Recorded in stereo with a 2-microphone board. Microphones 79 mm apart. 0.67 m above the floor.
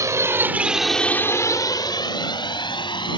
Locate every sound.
0.0 s a drone: 40° right (ahead or behind); by 3.2 s 80° left